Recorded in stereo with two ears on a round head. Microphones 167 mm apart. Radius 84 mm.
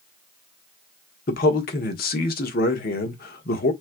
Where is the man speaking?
50° left (ahead or behind), 1.3 m.